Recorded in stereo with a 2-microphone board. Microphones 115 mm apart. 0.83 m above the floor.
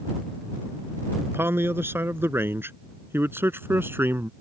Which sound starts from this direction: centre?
A man speaking, at 1.3 s.